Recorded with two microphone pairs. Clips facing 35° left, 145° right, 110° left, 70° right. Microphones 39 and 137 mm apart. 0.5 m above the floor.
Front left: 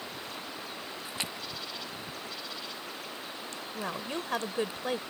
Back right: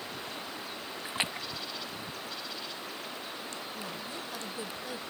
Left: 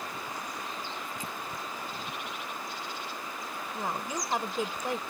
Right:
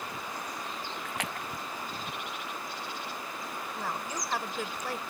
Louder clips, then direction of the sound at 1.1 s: Back right 5 dB, right 2 dB; 85° right.